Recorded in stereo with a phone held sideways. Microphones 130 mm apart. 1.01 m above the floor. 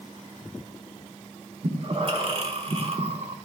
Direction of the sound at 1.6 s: 45° right (ahead or behind).